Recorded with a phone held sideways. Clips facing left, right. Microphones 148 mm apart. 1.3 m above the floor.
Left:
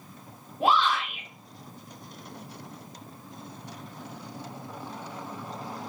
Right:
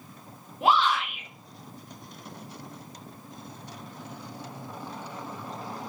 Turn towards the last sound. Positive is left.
turn(degrees=80)